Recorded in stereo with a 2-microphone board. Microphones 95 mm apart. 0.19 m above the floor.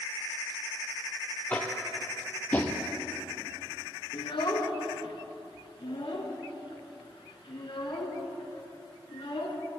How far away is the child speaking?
About 1.6 m.